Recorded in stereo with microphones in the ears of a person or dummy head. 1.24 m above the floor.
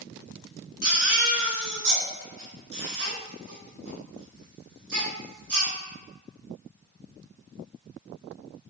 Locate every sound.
0.8 s a baby crying: 70° right (ahead or behind), 1.6 m